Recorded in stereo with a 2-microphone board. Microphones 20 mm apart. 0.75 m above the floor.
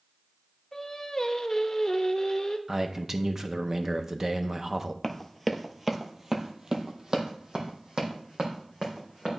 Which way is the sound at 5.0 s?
15° left (ahead or behind).